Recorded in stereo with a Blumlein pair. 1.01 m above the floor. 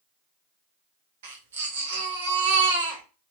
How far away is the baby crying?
About 1.0 m.